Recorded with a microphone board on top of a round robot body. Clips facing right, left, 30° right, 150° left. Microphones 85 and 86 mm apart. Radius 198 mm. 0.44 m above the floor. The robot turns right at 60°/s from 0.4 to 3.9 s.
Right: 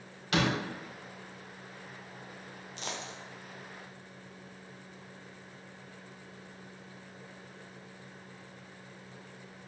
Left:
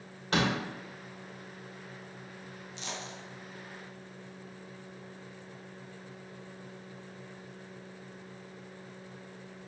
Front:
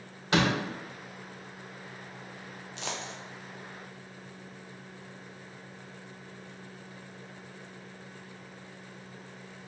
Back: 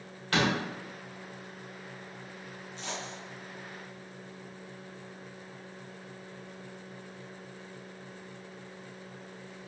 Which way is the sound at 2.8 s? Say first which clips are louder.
Right 1 dB, front 2 dB; 50° right.